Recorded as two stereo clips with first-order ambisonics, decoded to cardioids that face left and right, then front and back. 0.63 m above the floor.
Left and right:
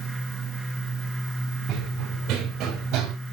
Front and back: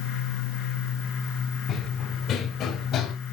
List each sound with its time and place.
1.7 s running footsteps: 50° right, 1.9 m